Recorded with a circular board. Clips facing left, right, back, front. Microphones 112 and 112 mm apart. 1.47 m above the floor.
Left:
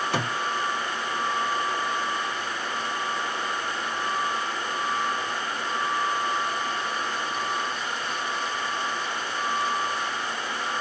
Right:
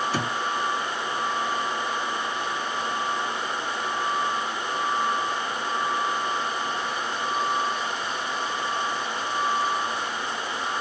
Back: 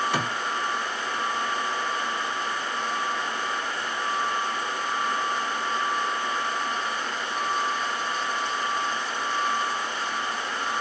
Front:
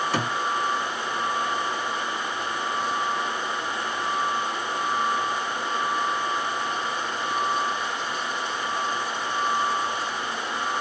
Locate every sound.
0.1 s a thud: 90° left, 2.5 m